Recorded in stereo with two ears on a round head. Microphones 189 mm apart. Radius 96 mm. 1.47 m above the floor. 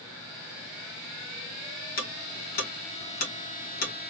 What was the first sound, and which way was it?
Ticking, 40° left (ahead or behind).